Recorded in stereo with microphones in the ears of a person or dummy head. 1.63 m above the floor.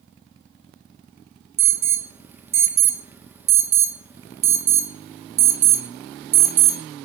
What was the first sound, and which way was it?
An alarm, 10° right (ahead or behind).